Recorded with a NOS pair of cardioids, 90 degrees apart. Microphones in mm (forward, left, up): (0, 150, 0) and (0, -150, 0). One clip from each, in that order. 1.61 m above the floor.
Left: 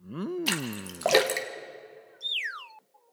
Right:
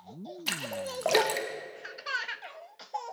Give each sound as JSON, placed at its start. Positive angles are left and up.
{"t": 0.5, "sound": "a splash", "azimuth_deg": 20, "distance_m": 2.0}